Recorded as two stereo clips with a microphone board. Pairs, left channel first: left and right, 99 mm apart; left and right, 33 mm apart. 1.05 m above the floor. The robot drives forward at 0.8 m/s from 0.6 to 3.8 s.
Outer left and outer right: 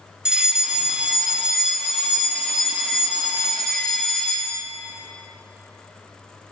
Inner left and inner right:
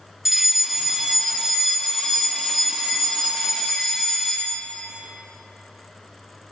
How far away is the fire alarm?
About 1.2 m.